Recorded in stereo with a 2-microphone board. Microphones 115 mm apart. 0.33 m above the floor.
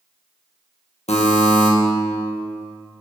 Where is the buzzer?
70° left (ahead or behind), 1.3 m.